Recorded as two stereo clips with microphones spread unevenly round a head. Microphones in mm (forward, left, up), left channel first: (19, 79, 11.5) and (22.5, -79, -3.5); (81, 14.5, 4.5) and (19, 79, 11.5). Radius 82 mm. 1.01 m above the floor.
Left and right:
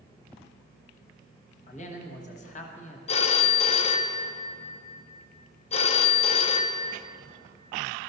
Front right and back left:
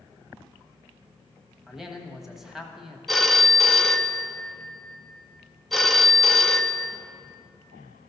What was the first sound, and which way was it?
A man speaking, 45° left.